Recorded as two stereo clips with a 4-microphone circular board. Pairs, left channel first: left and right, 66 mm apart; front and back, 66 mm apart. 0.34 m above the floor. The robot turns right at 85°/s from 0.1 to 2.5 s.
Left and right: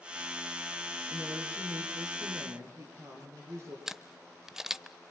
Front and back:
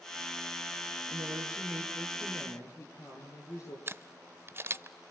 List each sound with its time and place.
1.1 s a woman speaking: 165° right, 6 m; by 3.8 s 45° right, 6 m
3.9 s a camera shutter: 170° right, 0.6 m